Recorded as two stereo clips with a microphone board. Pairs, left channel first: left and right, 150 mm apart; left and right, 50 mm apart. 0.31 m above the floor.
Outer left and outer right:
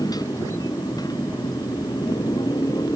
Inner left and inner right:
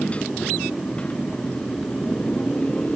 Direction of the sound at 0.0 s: 25° left (ahead or behind).